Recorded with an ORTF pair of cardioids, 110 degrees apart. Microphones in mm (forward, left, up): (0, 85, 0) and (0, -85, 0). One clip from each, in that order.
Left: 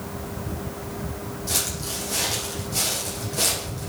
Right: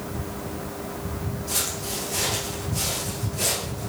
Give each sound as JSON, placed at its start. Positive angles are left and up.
{"t": 1.5, "sound": "footsteps", "azimuth_deg": 60, "distance_m": 5.5}